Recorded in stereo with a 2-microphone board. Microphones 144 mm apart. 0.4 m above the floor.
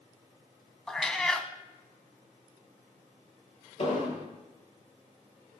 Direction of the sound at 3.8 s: 45° left (ahead or behind).